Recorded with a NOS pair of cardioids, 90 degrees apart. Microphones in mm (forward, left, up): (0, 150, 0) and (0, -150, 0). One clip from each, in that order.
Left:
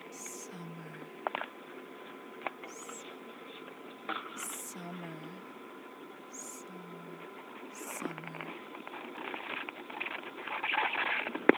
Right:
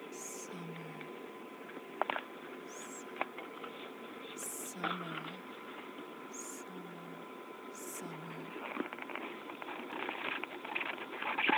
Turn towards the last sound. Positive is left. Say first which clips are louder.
# even
turn(degrees=10)